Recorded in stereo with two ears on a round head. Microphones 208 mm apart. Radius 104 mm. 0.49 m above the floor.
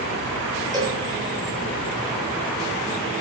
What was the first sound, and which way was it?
A cowbell, 20° right (ahead or behind).